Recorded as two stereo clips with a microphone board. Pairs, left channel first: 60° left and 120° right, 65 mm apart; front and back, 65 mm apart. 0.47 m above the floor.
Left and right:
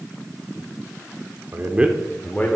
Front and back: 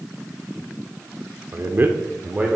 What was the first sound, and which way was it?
A man speaking, 150° right.